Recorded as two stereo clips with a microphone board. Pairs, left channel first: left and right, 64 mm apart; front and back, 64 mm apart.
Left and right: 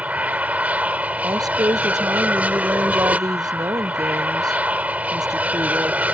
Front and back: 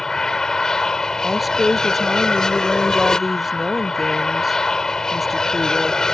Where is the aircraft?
65° right.